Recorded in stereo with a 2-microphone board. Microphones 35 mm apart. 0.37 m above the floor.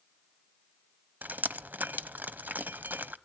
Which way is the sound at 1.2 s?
70° right (ahead or behind).